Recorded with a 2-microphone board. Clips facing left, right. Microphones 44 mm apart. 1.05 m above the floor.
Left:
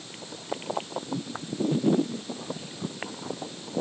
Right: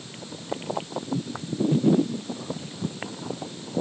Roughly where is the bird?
I don't hear a bird.